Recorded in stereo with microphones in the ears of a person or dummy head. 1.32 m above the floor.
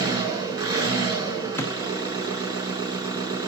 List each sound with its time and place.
0.0 s an engine running: 25° right (ahead or behind), 6 m
1.6 s a thud: 15° left (ahead or behind), 1.1 m